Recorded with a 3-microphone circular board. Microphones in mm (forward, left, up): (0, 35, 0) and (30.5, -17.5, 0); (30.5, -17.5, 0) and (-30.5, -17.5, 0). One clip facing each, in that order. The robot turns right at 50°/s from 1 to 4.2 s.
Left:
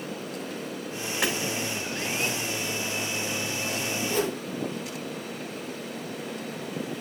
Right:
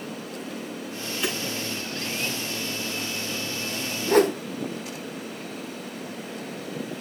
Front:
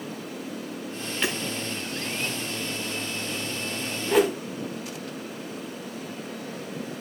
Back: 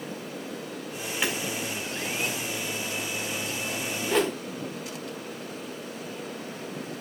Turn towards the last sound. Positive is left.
turn(degrees=-85)